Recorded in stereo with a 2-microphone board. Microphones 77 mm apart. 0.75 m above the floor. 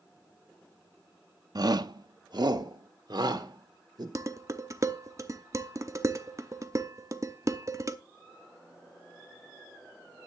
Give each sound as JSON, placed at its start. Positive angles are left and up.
{"t": 1.6, "sound": "a shout", "side_deg": -60, "distance_m": 0.8}
{"t": 4.2, "sound": "dishes clattering", "side_deg": -40, "distance_m": 0.9}